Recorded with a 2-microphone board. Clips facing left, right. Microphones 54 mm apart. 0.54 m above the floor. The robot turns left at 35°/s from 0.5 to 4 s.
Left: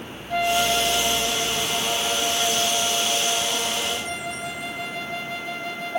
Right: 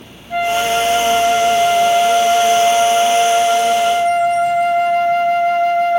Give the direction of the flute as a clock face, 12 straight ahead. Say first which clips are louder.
Right 6 dB; 12 o'clock.